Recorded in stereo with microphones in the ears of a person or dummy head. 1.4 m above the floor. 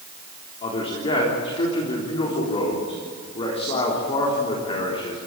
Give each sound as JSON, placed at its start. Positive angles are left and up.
{"t": 0.6, "sound": "a man speaking", "side_deg": 35, "distance_m": 3.5}